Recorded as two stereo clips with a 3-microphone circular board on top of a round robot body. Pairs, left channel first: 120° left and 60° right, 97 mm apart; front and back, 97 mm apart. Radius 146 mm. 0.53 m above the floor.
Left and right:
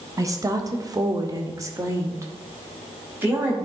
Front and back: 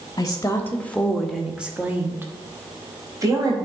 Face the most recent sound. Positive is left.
turn(degrees=-130)